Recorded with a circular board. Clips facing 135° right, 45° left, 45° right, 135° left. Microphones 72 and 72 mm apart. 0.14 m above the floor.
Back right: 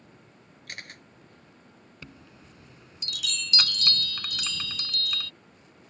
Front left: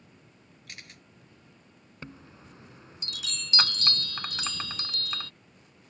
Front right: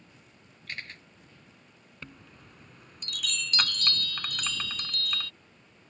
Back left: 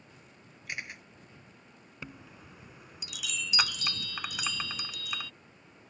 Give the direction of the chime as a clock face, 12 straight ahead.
10 o'clock.